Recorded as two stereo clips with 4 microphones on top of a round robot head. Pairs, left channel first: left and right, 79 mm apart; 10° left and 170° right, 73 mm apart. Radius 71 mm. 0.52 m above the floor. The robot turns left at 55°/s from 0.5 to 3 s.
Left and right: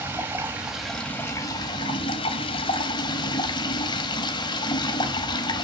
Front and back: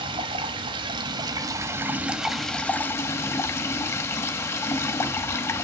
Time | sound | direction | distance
0.0 | running water | 160° right | 1.1 m